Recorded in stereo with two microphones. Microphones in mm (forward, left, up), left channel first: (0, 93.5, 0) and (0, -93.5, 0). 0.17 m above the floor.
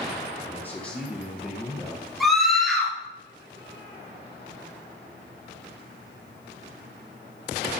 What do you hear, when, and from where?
0.4 s a man speaking: 15° left (ahead or behind), 3.5 m; by 2.0 s 10° right (ahead or behind), 4 m
2.2 s a scream: centre (ahead or behind), 3.5 m